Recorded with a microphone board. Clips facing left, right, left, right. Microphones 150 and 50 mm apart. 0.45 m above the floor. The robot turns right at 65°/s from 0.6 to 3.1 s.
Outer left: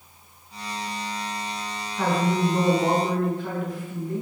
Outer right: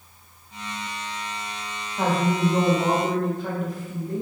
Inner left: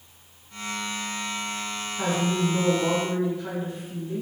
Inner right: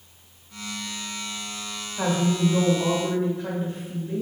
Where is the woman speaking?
130° right, 1.2 m; by 4.2 s 55° right, 1.2 m.